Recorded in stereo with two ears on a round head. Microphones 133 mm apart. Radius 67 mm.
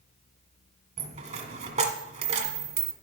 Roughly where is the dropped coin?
Right.